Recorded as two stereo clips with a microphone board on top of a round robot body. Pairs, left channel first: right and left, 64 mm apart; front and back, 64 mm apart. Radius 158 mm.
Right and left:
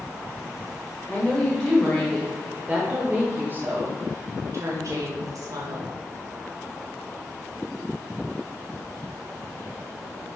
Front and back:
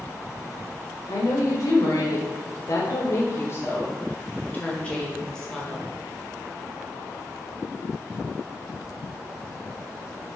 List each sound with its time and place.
1.1 s a woman speaking: 10° right, 1.8 m; by 5.9 s 85° left, 1.9 m